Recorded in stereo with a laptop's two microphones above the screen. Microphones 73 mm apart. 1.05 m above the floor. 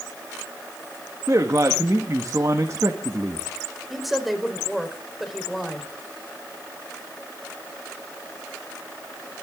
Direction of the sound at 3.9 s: Centre (ahead or behind).